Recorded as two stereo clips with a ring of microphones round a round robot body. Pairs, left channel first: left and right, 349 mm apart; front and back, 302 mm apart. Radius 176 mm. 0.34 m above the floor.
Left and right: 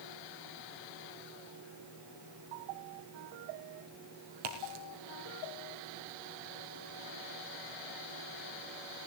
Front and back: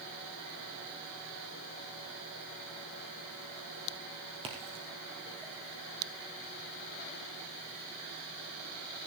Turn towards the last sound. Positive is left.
turn(degrees=-105)